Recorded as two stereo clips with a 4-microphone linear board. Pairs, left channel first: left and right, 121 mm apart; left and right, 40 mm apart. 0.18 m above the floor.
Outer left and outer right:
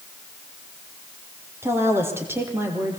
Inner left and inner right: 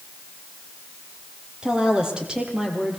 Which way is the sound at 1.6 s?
20° right (ahead or behind).